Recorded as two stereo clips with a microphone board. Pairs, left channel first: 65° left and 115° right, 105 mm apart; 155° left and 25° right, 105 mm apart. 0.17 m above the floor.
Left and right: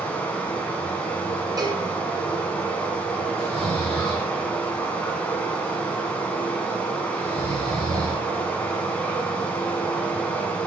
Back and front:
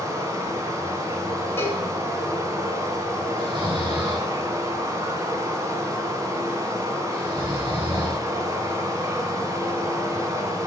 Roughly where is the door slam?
No door slam in this recording.